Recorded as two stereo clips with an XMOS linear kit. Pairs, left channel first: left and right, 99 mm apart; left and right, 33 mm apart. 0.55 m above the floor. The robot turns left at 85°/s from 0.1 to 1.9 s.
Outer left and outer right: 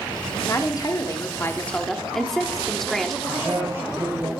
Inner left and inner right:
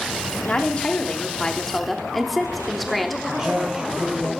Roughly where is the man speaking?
Right.